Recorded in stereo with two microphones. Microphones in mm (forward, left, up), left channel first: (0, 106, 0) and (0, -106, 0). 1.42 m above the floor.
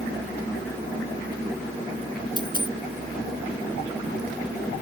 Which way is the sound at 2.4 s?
20° left (ahead or behind).